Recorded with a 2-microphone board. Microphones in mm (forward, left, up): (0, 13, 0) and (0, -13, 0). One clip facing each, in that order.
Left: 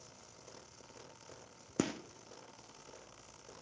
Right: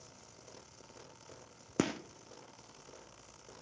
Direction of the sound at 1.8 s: 20° right (ahead or behind).